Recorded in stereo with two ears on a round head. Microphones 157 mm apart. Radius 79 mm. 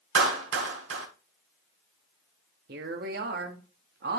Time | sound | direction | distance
0.1 | a clap | 75° right (ahead or behind) | 1.6 m
2.7 | a woman speaking | 60° right (ahead or behind) | 1.1 m